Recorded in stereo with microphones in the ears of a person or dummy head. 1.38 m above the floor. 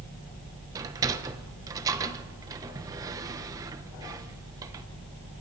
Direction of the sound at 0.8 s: 20° right (ahead or behind).